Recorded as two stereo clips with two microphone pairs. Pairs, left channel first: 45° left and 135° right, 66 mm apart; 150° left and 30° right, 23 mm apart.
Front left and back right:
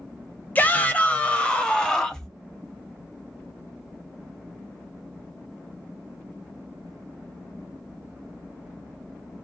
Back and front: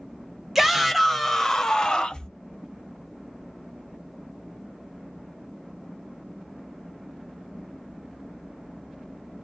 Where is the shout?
40° left, 1.0 m; by 2.3 s 120° left, 1.2 m.